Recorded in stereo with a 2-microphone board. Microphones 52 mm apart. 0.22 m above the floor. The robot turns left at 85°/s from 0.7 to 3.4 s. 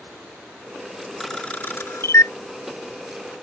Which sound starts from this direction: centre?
A camera shutter, at 1.2 s.